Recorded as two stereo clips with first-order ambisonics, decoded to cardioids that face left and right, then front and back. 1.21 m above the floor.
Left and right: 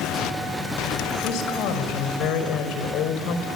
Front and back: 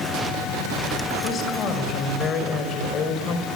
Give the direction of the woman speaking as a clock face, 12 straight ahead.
10 o'clock.